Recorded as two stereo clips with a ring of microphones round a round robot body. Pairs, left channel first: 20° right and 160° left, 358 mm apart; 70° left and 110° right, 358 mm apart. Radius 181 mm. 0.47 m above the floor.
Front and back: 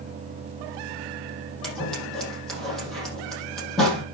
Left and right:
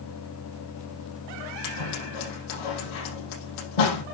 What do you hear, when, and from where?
1.6 s scissors: 65° left, 5.5 m